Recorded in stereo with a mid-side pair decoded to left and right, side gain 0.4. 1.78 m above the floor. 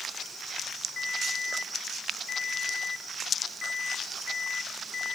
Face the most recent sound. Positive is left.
turn(degrees=60)